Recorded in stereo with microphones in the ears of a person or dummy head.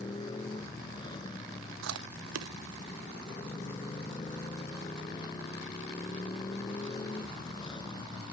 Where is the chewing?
70° right (ahead or behind).